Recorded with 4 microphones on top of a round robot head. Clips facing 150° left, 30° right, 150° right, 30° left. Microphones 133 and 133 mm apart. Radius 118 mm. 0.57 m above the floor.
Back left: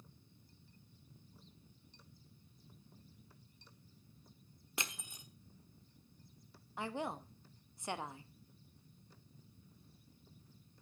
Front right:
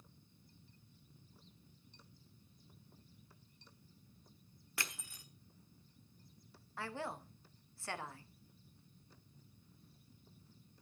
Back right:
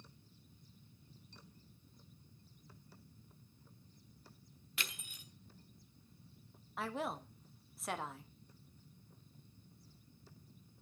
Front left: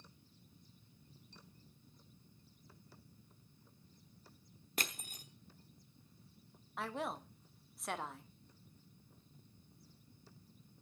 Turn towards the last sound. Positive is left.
turn(degrees=125)